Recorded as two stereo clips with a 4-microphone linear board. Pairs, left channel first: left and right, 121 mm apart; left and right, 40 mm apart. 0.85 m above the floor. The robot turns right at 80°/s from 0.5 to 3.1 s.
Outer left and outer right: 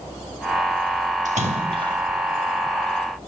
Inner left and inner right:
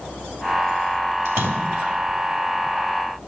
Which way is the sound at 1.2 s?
85° right.